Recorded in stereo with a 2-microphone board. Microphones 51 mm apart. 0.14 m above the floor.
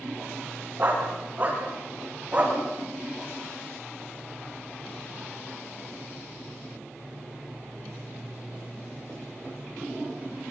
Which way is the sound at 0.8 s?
35° right (ahead or behind).